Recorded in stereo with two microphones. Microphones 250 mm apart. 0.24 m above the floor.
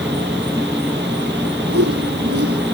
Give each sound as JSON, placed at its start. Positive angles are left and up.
{"t": 0.0, "sound": "an insect", "side_deg": -5}
{"t": 1.7, "sound": "a whoosh", "side_deg": -65}